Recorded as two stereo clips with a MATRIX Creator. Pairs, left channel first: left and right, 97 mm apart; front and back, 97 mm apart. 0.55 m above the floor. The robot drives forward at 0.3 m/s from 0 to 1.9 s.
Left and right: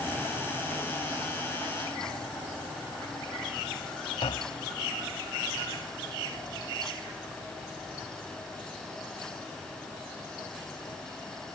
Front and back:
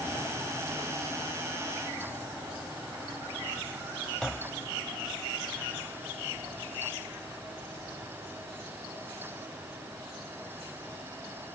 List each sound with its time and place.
4.2 s tapping: 85° left